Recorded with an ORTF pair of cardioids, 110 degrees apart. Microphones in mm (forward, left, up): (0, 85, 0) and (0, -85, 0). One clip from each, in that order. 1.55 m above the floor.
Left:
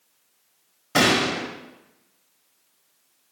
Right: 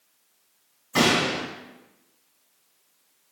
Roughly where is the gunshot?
Ahead left.